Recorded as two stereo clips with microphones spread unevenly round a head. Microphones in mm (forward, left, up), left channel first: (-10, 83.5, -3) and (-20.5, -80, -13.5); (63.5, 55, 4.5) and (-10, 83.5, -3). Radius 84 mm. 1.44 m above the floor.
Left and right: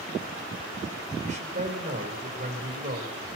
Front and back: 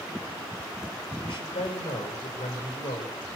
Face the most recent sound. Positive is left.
turn(degrees=-45)